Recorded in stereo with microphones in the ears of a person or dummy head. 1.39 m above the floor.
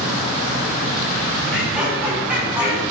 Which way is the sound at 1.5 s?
5° right (ahead or behind).